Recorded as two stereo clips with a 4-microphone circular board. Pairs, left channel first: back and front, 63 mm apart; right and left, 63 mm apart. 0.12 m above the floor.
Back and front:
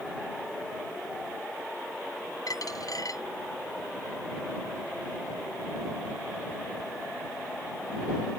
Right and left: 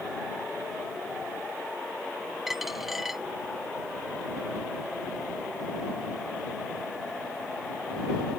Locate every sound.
2.5 s a dropped coin: 175° left